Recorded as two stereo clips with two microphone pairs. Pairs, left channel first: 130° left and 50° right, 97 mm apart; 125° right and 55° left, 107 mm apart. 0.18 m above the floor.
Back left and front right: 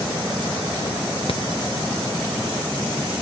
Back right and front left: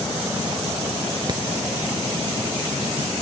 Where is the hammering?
105° left.